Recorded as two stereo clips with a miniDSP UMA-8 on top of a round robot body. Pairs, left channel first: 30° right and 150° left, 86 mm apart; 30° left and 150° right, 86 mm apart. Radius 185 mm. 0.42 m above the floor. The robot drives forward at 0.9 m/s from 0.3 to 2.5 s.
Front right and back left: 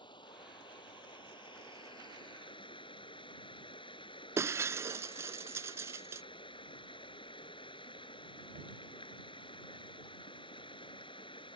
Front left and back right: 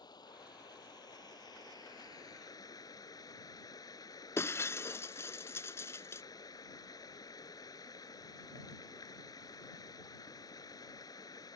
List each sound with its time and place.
0.0 s running water: 5° right; by 11.6 s 15° right
4.4 s breaking glass: 90° left